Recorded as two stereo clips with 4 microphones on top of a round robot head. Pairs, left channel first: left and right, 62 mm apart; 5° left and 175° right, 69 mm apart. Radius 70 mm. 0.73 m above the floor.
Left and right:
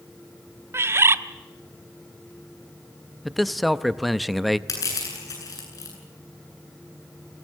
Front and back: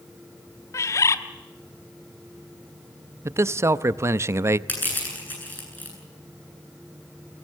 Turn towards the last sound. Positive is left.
turn(degrees=65)